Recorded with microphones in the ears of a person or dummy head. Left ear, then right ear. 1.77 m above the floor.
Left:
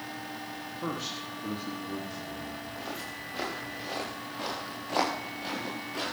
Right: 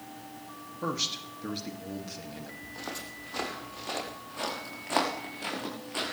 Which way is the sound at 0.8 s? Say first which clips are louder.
Right 4 dB; 60° right (ahead or behind).